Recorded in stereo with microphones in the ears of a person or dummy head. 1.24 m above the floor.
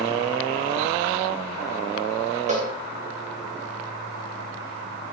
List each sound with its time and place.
2.5 s a cowbell: 35° right (ahead or behind), 3.5 m